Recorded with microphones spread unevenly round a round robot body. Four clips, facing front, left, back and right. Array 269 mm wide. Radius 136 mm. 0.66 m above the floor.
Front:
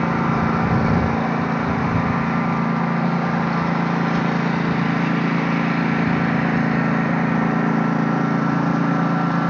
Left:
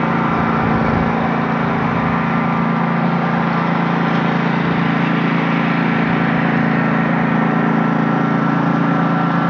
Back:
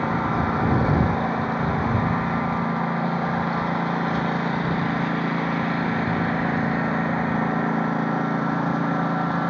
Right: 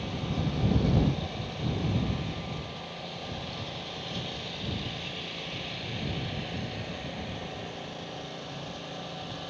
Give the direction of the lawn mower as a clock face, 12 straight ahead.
10 o'clock.